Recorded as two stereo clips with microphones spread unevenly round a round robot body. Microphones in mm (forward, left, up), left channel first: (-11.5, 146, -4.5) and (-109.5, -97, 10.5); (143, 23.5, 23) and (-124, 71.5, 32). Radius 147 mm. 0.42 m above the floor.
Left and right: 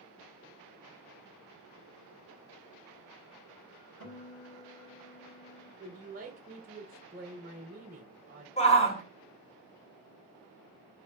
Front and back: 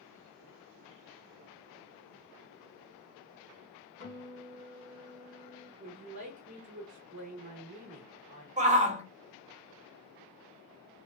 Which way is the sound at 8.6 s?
115° left.